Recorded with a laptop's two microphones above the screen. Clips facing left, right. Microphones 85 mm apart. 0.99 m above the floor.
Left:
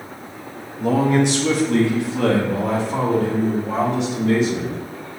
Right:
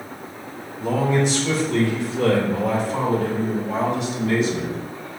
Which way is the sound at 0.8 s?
60° left (ahead or behind).